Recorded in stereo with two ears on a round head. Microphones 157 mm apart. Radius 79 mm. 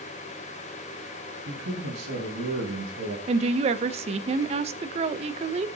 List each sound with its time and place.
1.4 s a man speaking: 75° right (ahead or behind), 7 m
3.3 s a woman speaking: 35° right (ahead or behind), 0.7 m